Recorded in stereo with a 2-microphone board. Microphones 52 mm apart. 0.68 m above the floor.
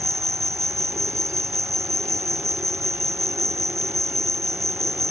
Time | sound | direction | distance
0.0 | an insect | 85° right | ?